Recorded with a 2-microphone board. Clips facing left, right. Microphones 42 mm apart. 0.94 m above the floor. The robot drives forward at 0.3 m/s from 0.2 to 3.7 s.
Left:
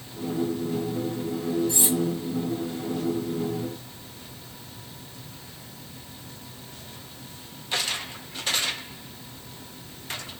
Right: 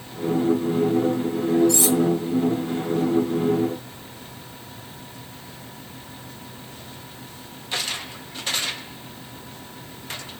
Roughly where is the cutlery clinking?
Right.